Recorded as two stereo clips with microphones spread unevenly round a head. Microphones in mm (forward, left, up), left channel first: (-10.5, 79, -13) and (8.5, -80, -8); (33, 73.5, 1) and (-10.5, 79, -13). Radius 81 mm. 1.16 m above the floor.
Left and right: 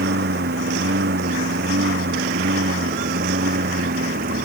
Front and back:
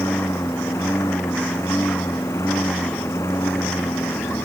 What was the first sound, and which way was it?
A lawn mower, 55° right.